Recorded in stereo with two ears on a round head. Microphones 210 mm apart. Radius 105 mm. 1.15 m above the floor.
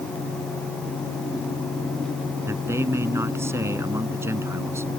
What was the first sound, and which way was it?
A man speaking, 10° right (ahead or behind).